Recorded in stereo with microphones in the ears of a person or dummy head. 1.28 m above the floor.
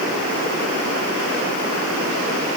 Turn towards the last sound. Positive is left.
No sound to turn to.